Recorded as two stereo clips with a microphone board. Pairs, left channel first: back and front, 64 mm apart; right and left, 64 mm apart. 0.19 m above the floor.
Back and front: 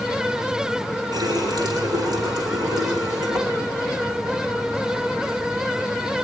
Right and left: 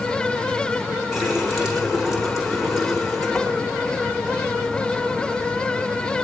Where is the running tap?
5° left, 10 m.